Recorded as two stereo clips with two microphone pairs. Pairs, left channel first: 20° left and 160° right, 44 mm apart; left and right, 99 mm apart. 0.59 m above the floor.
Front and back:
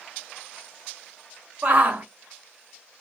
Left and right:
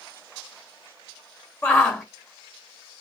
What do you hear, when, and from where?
1.6 s a shout: 155° left, 0.8 m